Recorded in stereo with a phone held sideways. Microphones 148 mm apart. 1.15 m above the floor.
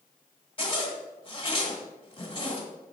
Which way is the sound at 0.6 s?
35° left (ahead or behind).